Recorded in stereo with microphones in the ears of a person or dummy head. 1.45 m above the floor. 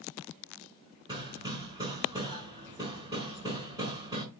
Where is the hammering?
20° right (ahead or behind), 4 m.